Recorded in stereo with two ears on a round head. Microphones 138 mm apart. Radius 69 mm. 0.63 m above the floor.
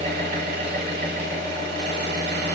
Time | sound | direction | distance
0.0 | an engine running | 80° right | 1.3 m